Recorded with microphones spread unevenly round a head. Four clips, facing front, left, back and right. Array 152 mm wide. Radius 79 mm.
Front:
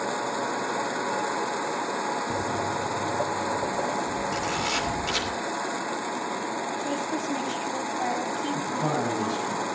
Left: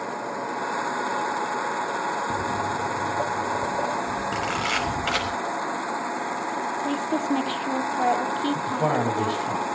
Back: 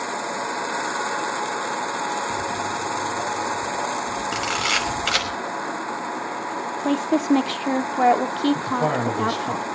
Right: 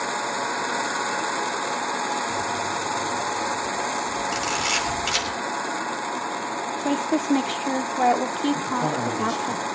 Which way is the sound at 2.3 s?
45° left.